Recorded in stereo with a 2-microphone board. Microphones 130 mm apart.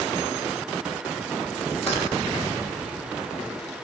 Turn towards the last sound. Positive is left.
turn(degrees=50)  # may be behind; listen again after turning